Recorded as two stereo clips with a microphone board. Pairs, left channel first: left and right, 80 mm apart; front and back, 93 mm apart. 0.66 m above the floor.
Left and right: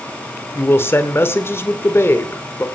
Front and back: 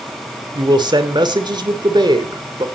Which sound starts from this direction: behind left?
A man speaking, at 0.6 s.